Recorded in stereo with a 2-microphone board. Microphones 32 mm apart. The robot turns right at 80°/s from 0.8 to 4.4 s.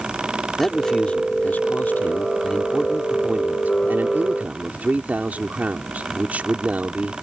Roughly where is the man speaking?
Ahead.